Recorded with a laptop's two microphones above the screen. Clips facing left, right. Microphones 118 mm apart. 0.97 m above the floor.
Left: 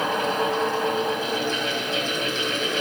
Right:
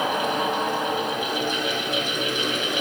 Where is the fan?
15° right (ahead or behind), 2 m.